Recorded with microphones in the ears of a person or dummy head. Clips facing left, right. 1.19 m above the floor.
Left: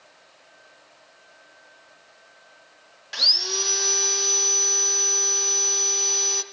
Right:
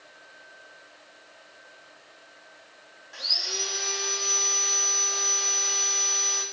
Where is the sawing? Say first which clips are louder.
Left 5 dB; 80° left, 0.7 m.